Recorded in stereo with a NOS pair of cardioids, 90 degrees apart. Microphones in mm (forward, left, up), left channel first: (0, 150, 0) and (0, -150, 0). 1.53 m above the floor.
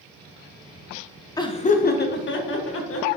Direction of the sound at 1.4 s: 10° left.